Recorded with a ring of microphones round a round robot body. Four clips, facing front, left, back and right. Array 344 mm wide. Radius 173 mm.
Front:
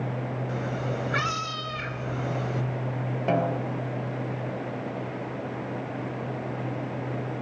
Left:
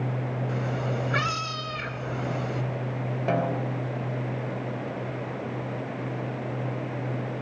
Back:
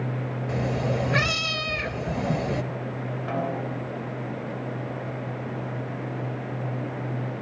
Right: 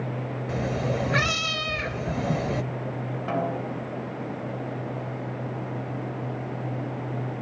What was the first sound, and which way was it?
A cat meowing, 140° right.